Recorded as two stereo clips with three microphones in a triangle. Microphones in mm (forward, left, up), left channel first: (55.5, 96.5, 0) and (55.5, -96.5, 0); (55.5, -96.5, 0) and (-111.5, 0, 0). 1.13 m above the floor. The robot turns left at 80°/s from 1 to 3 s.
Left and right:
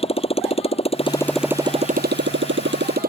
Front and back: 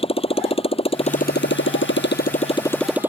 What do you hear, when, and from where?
0.0 s a motorcycle: 30° left; by 3.1 s 130° right